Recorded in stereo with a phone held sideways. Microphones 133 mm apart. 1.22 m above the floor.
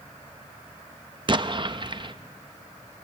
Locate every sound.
1.3 s an explosion: 40° right (ahead or behind), 0.6 m